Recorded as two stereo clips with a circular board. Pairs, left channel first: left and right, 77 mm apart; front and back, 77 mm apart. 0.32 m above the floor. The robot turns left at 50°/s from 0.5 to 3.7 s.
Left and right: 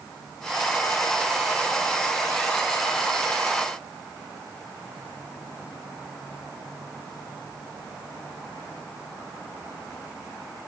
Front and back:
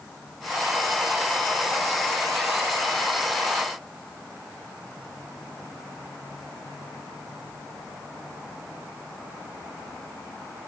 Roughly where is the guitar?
I don't hear a guitar.